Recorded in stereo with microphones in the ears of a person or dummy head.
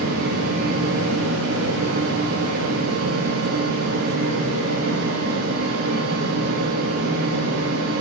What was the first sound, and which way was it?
A fan, 70° right (ahead or behind).